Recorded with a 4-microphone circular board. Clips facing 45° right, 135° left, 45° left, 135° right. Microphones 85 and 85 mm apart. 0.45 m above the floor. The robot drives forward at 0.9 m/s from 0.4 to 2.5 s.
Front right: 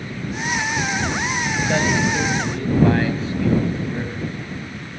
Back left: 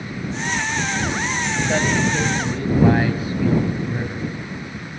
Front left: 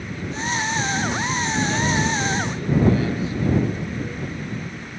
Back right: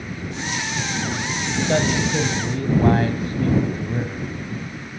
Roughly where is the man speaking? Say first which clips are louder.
Even, back right 4 dB; behind right.